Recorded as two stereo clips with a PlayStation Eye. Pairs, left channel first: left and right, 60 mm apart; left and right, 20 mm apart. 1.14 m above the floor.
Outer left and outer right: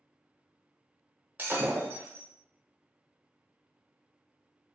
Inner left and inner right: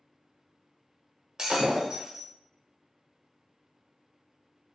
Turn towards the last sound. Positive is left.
turn(degrees=-30)  # may be behind; listen again after turning